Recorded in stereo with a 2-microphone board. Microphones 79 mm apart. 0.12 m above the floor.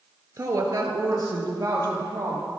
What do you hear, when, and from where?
0.4 s a woman speaking: 45° right (ahead or behind), 1.7 m; by 2.5 s 50° right (ahead or behind), 3.5 m